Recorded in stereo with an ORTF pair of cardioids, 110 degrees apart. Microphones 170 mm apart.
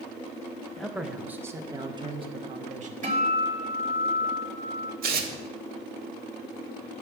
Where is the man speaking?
Straight ahead, 1.3 m; by 2.9 s 50° right, 1.4 m.